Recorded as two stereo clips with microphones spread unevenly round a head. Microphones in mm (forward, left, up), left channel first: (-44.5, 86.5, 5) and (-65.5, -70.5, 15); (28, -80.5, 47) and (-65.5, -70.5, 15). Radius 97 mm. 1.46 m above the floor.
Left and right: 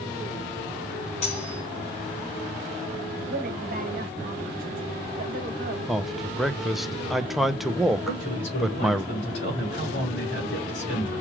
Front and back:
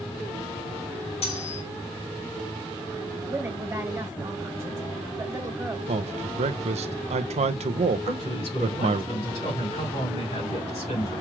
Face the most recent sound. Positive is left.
turn(degrees=25)